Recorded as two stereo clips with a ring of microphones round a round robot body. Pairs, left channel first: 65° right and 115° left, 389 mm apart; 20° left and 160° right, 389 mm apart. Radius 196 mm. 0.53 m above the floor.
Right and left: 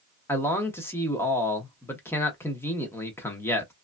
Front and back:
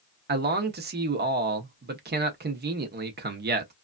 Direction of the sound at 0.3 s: 145° right.